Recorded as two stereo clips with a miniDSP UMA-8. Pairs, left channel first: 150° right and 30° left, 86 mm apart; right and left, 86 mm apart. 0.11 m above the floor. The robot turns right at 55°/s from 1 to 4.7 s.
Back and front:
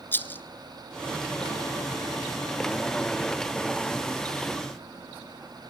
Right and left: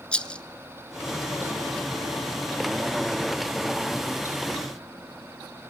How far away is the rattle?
About 0.9 m.